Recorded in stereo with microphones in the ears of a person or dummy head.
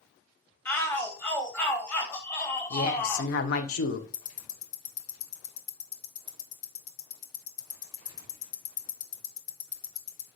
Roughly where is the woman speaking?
Left.